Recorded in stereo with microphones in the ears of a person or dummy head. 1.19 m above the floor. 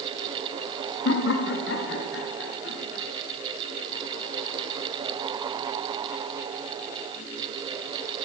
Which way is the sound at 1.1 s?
65° left (ahead or behind).